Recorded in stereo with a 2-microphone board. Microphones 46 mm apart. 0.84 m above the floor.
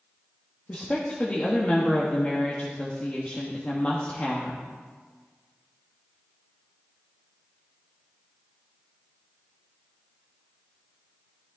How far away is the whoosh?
I don't hear a whoosh.